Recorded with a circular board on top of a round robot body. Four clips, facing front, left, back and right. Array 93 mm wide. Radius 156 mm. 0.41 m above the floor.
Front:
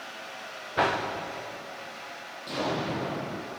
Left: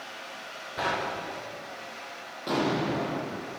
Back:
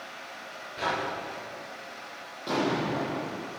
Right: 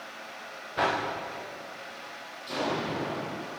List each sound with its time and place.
0.8 s a whoosh: 10° right, 9.5 m
2.5 s an explosion: 125° left, 8.5 m